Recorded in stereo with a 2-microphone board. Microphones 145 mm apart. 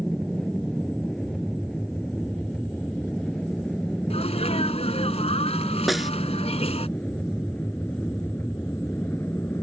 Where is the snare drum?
Centre (ahead or behind).